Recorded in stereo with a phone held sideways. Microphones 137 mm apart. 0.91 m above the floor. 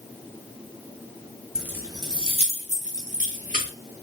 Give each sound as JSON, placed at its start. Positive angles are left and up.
{"t": 1.6, "sound": "keys jangling", "side_deg": -5, "distance_m": 0.6}